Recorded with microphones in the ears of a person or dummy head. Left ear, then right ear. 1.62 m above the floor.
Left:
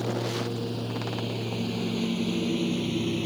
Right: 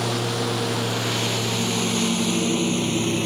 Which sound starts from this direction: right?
A lawn mower, at 0.0 s.